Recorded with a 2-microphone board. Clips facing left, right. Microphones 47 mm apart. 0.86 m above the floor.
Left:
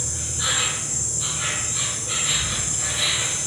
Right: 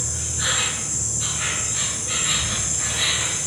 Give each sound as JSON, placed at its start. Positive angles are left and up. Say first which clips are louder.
{"t": 0.0, "sound": "an insect", "louder": "right 1 dB", "side_deg": -60, "distance_m": 1.5}